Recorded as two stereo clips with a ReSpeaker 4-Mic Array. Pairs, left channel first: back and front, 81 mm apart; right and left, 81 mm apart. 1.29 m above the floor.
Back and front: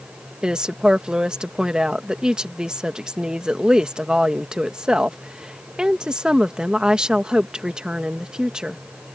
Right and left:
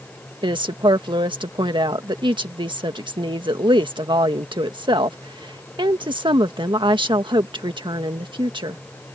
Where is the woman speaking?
80° left.